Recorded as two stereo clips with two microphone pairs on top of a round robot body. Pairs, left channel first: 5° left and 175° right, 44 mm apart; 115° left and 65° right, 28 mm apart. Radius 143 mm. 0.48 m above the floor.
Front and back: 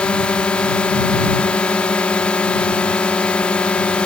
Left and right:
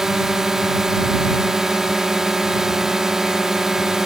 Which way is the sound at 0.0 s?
15° right.